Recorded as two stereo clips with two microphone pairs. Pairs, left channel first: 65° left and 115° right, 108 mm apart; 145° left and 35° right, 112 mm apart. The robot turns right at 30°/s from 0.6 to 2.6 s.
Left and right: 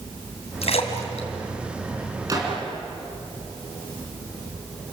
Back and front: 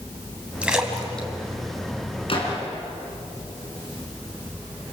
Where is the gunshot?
175° right, 4.5 m; by 2.6 s 165° right, 4.5 m.